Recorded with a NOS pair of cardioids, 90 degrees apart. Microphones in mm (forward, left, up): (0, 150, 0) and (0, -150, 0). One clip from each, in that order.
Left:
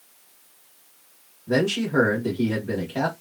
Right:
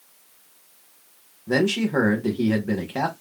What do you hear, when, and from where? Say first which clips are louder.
1.5 s a man speaking: right 1 dB; 25° right, 1.3 m